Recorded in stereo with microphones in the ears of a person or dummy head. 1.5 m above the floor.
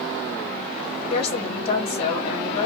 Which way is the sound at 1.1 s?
65° left (ahead or behind).